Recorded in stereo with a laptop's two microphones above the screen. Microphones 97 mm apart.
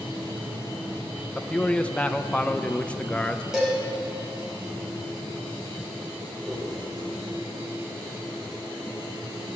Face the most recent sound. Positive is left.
turn(degrees=0)  # may be behind; listen again after turning